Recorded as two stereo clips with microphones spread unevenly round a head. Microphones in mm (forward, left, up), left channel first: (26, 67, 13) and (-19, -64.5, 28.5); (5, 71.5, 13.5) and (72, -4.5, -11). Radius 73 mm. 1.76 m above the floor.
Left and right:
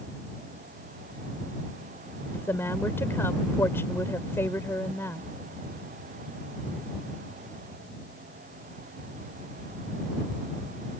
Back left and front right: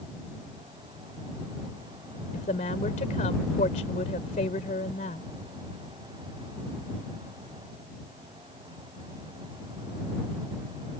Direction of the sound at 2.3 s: 150° left.